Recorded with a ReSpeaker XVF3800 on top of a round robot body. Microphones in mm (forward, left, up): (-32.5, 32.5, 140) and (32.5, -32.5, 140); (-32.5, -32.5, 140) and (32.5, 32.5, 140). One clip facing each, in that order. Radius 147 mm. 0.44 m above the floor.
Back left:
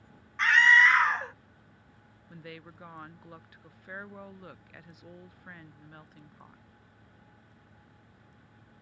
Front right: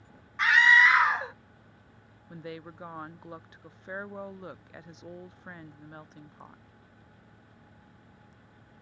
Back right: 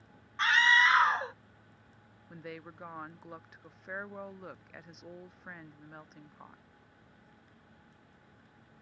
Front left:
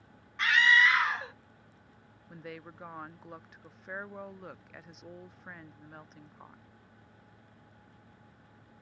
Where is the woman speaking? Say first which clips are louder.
Front right 5 dB, even; 45° right.